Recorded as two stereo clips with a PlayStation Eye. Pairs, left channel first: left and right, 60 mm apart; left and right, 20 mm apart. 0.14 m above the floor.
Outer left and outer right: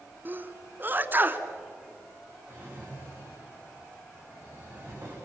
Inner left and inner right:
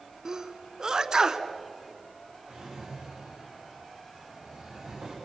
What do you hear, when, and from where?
0.2 s a sneeze: 35° right (ahead or behind), 1.3 m
2.5 s a drawer: 40° right (ahead or behind), 8.5 m